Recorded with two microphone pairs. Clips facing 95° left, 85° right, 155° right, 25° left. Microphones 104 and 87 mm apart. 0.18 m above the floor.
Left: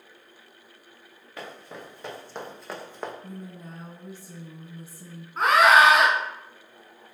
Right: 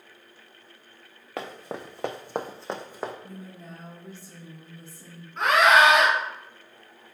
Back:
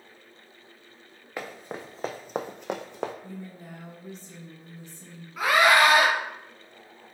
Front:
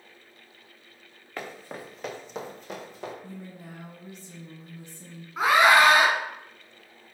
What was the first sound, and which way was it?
Running footsteps, 80° right.